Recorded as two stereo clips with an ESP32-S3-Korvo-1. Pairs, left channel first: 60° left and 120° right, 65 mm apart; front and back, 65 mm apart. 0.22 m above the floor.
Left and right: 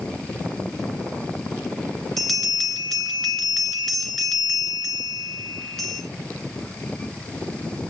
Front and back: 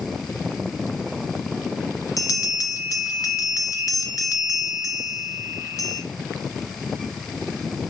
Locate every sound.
2.2 s a bell: 25° right, 2.5 m